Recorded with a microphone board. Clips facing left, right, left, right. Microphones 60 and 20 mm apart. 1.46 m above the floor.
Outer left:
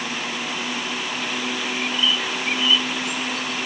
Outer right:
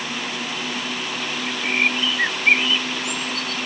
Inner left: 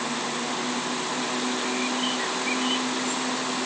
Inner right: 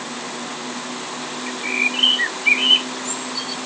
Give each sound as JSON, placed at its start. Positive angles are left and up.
{"t": 1.5, "sound": "a bird", "side_deg": -60}